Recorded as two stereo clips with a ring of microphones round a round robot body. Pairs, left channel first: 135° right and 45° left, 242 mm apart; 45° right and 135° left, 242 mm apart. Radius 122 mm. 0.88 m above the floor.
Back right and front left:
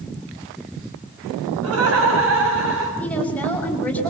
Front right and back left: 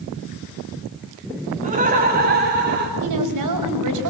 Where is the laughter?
75° left, 6.5 m; by 2.9 s 90° left, 6.5 m.